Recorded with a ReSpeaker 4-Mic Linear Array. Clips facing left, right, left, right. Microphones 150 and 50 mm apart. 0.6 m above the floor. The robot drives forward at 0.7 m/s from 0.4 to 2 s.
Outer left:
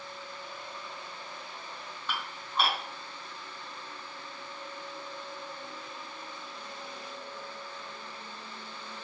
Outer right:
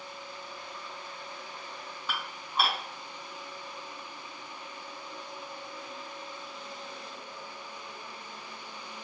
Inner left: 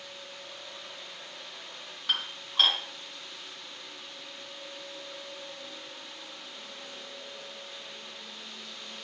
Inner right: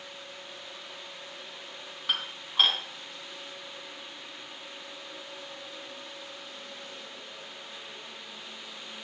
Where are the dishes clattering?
5° right (ahead or behind), 4 m.